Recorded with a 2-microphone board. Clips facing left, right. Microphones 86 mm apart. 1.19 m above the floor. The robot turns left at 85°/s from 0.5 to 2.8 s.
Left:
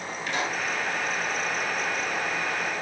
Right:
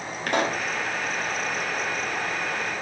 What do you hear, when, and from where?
0.3 s a pop: 60° right (ahead or behind), 2.5 m; by 0.7 s 70° right (ahead or behind), 2.5 m